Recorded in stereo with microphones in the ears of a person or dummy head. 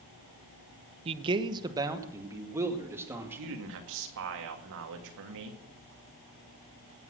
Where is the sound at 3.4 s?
70° right (ahead or behind), 1.9 m.